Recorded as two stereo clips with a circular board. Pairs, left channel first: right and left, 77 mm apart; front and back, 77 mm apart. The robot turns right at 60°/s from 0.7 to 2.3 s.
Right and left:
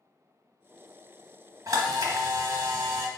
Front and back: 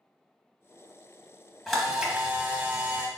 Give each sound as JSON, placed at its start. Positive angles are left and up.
{"t": 1.7, "sound": "a camera shutter", "azimuth_deg": 85, "distance_m": 1.1}